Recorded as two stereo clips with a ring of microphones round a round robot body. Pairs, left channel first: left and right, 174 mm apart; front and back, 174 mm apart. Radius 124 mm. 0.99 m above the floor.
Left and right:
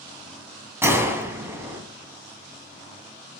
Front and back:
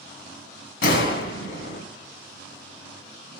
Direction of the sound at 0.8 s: 15° right.